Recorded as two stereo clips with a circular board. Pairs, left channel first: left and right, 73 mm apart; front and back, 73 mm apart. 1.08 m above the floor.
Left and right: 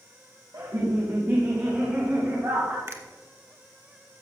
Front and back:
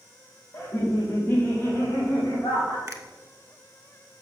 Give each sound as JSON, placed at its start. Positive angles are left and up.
{"t": 0.5, "sound": "laughter", "azimuth_deg": -60, "distance_m": 1.8}
{"t": 2.9, "sound": "a finger snap", "azimuth_deg": -135, "distance_m": 1.4}